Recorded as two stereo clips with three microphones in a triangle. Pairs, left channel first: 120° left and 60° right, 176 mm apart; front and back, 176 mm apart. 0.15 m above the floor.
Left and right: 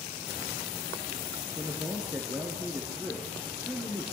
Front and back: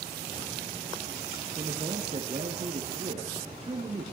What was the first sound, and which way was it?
A man speaking, 140° right.